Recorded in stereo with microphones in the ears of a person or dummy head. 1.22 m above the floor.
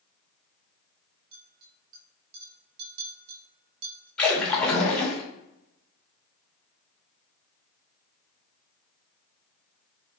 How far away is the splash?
About 0.9 m.